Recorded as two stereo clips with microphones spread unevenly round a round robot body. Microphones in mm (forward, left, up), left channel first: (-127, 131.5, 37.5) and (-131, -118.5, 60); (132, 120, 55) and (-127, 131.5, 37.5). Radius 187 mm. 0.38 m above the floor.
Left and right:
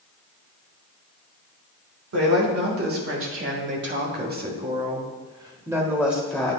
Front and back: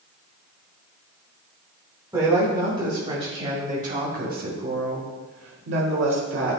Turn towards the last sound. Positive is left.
turn(degrees=170)